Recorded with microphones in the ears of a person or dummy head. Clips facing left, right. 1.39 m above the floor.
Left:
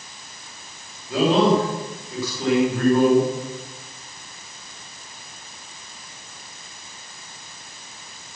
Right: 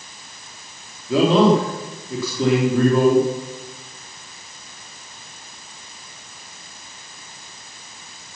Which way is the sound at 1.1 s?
65° right (ahead or behind).